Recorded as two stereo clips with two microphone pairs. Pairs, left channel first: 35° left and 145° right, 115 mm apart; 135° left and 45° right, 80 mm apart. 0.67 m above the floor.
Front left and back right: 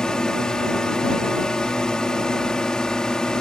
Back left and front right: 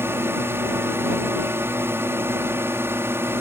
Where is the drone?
40° right.